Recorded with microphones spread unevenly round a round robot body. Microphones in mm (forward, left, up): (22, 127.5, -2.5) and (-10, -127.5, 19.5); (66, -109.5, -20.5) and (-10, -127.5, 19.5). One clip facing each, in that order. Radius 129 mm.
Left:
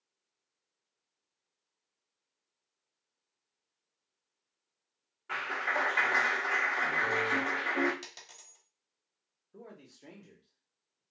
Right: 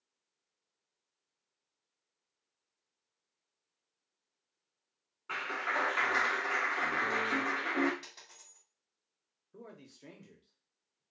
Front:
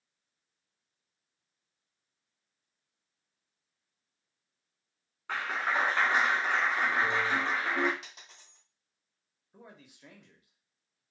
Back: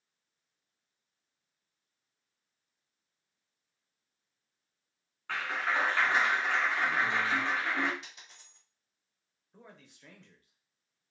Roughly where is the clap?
Ahead.